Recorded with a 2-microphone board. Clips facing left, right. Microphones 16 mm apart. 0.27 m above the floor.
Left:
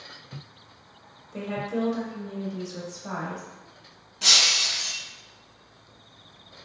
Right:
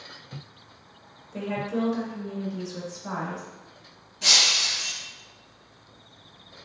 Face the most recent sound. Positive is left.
turn(degrees=25)  # may be behind; listen again after turning